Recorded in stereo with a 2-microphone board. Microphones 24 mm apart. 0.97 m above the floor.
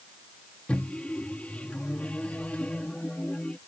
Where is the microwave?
70° left (ahead or behind).